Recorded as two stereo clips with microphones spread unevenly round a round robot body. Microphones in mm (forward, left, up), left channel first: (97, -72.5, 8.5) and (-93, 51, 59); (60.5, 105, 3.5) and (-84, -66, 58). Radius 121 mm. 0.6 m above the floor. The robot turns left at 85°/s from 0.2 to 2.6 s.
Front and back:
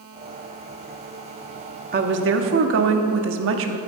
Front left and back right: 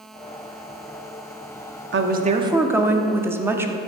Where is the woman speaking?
165° right, 1.1 m; by 3.8 s 140° left, 1.1 m.